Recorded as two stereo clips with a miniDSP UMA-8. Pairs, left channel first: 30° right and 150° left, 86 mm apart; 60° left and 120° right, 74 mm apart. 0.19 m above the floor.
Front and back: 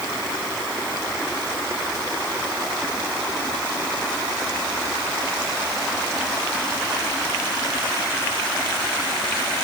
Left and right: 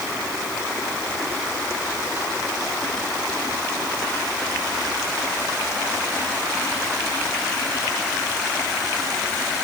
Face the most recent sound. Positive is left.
No sound to turn to.